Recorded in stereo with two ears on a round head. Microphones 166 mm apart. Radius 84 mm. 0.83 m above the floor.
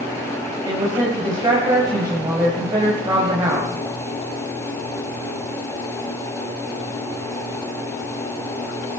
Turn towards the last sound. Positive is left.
turn(degrees=-20)  # may be behind; listen again after turning